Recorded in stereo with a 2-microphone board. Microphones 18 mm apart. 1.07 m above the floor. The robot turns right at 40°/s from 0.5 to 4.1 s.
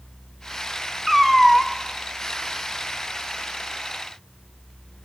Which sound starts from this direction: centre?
A cat meowing, at 1.1 s.